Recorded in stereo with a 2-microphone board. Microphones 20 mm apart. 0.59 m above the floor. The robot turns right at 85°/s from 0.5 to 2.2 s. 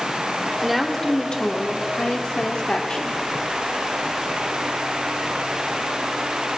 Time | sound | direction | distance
0.6 | a woman speaking | 10° right | 1.1 m